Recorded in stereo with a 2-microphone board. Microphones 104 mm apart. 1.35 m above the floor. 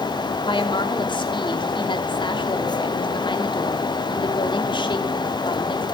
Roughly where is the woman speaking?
Left.